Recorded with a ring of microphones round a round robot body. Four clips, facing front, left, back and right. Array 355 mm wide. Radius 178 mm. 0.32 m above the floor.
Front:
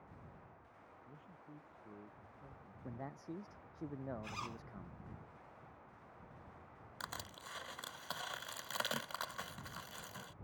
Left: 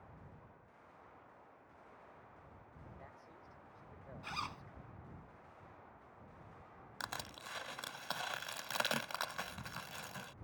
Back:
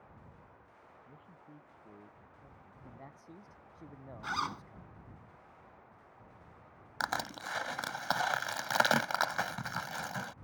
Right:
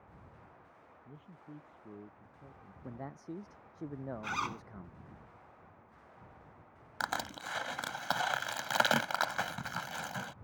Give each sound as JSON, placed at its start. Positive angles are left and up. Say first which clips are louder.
{"t": 1.1, "sound": "a man speaking", "louder": "right 7 dB, even", "azimuth_deg": -95}
{"t": 2.8, "sound": "a man speaking", "louder": "right 15 dB, front 6 dB", "azimuth_deg": -70}
{"t": 4.2, "sound": "a zipper", "louder": "right 6 dB, back 10 dB", "azimuth_deg": -145}
{"t": 7.0, "sound": "crushing", "louder": "right 10 dB, back 13 dB", "azimuth_deg": -140}